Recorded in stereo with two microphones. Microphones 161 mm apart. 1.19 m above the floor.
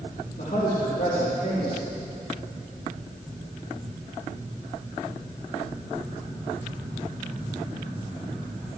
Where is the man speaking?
65° left (ahead or behind), 3 m.